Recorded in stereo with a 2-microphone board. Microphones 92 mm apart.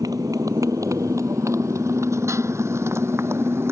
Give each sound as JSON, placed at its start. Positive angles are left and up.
{"t": 0.0, "sound": "a motorcycle", "side_deg": -40}